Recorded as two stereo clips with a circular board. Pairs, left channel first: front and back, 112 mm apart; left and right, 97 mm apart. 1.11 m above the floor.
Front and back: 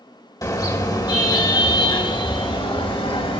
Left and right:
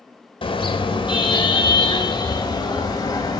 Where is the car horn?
60° left, 3 m; by 3.4 s 40° left, 4 m.